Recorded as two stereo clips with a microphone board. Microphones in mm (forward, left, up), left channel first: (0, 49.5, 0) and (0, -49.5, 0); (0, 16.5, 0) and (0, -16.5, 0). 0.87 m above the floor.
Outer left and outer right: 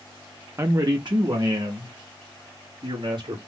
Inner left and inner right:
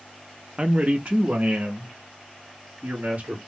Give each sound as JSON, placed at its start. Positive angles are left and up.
{"t": 0.6, "sound": "a man speaking", "side_deg": -30, "distance_m": 0.5}